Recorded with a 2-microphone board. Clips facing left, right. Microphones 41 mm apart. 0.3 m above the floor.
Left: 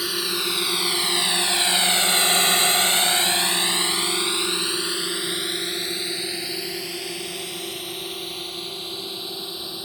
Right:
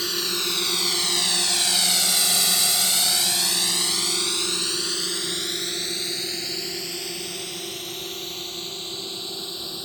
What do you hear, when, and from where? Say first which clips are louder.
0.0 s a drone: left 1 dB; 10° left (ahead or behind)